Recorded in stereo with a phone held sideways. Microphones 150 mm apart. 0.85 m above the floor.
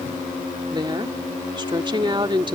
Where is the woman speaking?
35° right (ahead or behind).